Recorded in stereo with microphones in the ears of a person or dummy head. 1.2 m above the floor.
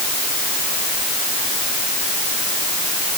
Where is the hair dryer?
No hair dryer in this recording.